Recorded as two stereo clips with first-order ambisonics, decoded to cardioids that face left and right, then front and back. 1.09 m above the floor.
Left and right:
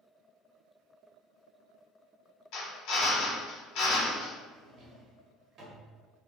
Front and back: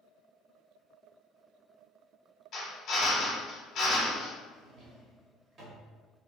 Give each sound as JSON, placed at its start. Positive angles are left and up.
{"t": 2.5, "sound": "a drill", "azimuth_deg": 60, "distance_m": 1.1}
{"t": 4.5, "sound": "a drawer", "azimuth_deg": -135, "distance_m": 1.0}